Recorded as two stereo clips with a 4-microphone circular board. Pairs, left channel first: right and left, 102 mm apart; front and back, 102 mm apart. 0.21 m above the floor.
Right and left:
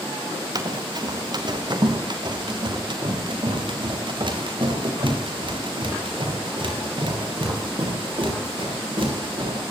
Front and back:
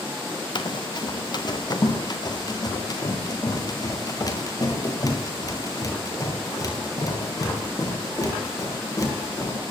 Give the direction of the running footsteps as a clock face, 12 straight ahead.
11 o'clock.